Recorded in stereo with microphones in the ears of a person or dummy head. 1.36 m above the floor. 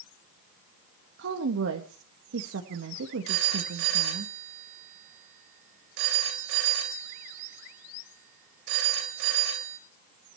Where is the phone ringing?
75° right (ahead or behind), 4.5 m.